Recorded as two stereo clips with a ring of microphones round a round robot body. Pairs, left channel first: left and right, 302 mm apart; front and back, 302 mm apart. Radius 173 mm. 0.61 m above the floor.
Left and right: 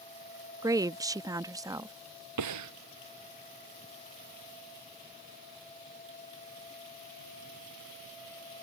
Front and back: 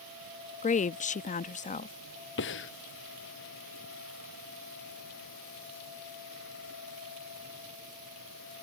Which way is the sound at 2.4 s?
60° right.